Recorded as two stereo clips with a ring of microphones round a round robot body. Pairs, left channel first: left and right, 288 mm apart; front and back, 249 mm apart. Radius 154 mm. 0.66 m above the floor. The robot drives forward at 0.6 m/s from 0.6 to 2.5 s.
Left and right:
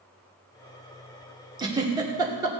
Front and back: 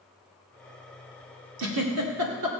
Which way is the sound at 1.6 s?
165° right.